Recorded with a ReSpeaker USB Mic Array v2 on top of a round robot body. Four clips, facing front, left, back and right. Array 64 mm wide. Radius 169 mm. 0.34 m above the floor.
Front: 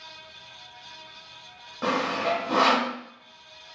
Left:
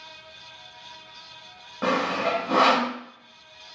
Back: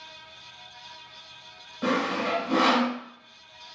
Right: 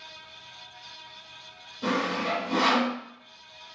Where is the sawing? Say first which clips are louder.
Left 3 dB, front 1 dB; 70° left, 1.0 m.